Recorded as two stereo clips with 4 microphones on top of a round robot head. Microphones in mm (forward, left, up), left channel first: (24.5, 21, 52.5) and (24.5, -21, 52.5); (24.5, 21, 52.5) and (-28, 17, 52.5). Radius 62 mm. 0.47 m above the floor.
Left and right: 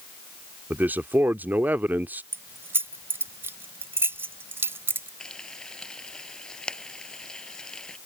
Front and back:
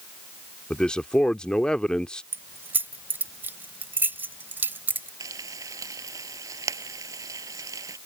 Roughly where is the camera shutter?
No camera shutter in this recording.